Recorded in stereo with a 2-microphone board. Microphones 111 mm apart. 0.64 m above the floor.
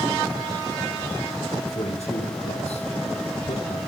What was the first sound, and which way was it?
A man speaking, 75° left (ahead or behind).